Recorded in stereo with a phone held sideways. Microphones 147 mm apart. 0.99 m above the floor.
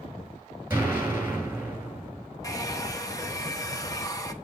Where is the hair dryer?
25° left (ahead or behind), 0.8 m.